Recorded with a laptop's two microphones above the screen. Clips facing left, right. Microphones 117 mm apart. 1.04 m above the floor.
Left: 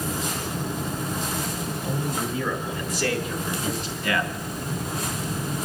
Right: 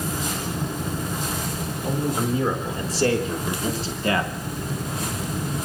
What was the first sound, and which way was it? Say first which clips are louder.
A man speaking: right 6 dB; 30° right (ahead or behind).